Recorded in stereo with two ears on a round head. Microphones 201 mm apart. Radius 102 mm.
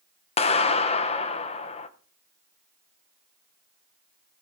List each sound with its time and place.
0.4 s a clap: 25° left (ahead or behind), 0.8 m